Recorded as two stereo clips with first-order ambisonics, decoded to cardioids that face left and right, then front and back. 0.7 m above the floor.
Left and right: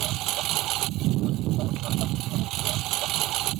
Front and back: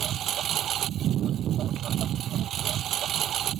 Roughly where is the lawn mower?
Behind right.